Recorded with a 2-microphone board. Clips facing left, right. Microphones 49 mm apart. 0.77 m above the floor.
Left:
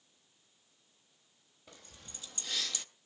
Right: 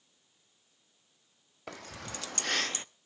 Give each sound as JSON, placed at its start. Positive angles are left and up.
{"t": 1.7, "sound": "keys jangling", "side_deg": -70, "distance_m": 1.0}